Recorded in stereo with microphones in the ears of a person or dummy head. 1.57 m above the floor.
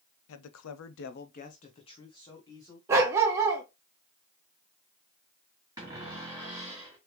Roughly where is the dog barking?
Centre.